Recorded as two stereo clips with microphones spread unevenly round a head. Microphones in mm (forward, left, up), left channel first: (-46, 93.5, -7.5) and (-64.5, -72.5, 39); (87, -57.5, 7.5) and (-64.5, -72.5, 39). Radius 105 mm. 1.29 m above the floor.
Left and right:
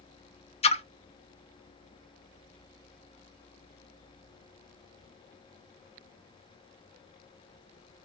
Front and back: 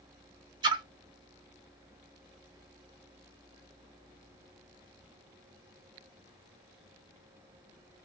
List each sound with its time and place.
0.6 s a splash: 145° left, 0.6 m